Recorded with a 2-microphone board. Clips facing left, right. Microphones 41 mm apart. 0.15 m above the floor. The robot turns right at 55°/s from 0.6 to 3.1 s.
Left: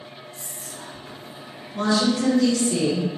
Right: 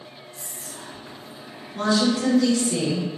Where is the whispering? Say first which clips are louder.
Left 1 dB; 35° right (ahead or behind), 1.9 m; by 2.7 s centre (ahead or behind), 1.9 m.